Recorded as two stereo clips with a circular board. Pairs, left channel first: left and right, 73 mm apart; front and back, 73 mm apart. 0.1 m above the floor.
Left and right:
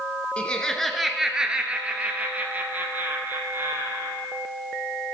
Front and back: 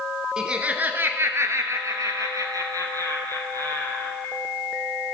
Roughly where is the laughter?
Behind left.